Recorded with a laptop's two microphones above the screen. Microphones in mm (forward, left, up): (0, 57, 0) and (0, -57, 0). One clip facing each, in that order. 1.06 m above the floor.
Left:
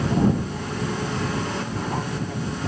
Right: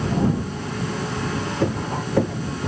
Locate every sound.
1.6 s hammering: 85° right